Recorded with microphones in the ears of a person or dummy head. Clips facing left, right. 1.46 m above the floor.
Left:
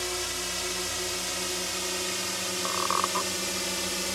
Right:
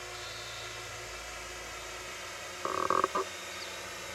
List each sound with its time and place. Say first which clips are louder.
0.0 s a drone: left 11 dB; 75° left (ahead or behind); by 4.2 s 70° left (ahead or behind)
2.6 s a squeak: right 2 dB; 35° right (ahead or behind)